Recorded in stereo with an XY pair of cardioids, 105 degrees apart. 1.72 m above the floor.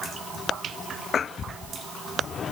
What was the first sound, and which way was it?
Only background noise.